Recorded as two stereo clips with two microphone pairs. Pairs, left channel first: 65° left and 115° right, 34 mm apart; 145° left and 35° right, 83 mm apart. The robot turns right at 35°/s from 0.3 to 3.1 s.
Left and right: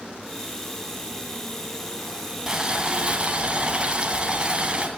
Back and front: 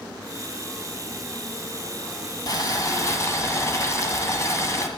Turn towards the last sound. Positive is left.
turn(degrees=-165)